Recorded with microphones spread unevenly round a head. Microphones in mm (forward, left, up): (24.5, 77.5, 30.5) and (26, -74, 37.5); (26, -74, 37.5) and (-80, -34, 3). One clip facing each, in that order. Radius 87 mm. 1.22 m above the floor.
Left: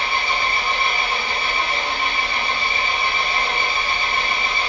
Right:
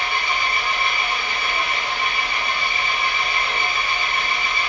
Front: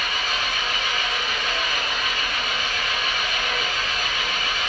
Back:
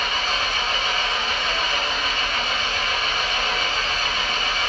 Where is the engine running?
85° left, 1.0 m.